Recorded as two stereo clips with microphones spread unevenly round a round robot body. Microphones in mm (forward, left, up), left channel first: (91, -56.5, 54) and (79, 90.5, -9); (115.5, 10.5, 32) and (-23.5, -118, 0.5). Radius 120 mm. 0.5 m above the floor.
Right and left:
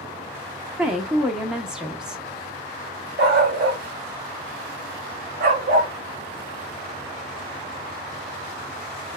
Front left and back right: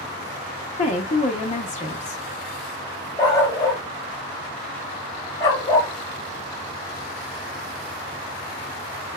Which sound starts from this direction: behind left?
A dog barking, at 3.2 s.